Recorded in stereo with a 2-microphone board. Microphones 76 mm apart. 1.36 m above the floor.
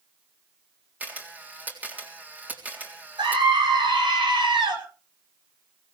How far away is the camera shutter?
About 3.5 m.